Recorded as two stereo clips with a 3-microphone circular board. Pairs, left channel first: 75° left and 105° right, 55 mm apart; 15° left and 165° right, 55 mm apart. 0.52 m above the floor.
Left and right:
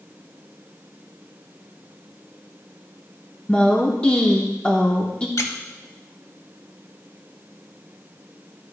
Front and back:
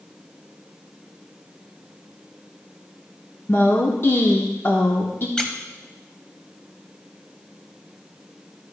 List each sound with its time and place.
3.5 s a woman speaking: 15° left, 0.8 m
5.4 s a squeak: 90° left, 0.9 m